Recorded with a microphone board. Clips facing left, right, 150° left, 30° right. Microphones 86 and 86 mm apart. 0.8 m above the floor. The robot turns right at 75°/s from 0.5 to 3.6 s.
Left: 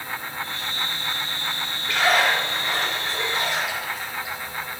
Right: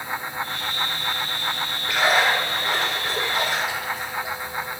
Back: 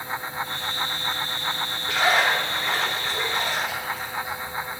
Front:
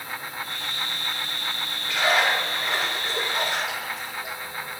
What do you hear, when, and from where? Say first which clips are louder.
1.9 s a splash: even, back 1 dB; 175° right, 3 m; by 4.5 s 45° right, 3 m